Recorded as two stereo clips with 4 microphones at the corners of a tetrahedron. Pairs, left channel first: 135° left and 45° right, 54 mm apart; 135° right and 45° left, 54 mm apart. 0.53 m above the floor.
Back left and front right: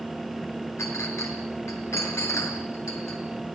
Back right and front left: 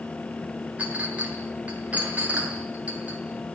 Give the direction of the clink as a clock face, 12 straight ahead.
8 o'clock.